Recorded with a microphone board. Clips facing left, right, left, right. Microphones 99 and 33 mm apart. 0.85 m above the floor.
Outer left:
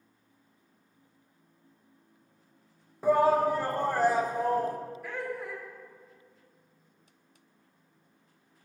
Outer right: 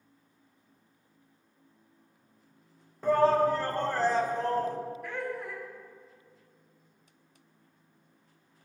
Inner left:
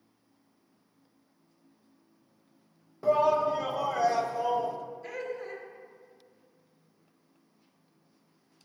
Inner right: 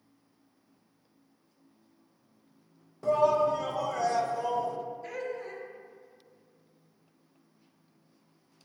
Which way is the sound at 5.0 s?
Centre (ahead or behind).